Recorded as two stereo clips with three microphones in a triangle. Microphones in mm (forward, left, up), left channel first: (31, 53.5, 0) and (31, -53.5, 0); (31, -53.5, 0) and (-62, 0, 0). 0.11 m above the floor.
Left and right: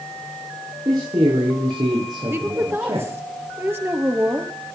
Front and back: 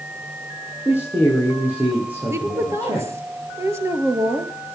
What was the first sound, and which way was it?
A man speaking, 135° right.